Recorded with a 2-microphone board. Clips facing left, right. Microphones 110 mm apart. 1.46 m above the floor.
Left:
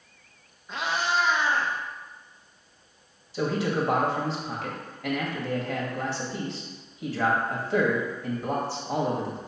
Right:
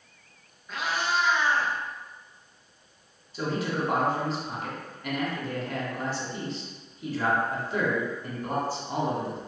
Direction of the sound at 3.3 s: 80° left.